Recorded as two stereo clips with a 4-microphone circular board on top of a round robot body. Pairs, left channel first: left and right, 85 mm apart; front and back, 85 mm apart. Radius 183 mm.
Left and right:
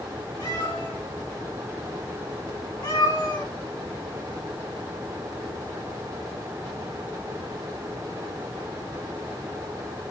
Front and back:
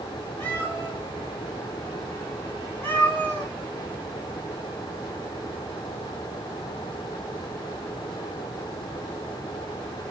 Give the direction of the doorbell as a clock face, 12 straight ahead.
I don't hear a doorbell.